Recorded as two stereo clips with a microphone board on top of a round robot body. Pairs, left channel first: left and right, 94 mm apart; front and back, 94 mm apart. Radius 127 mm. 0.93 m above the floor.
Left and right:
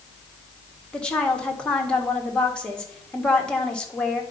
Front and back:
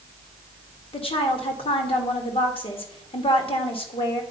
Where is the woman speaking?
10° left, 1.7 m.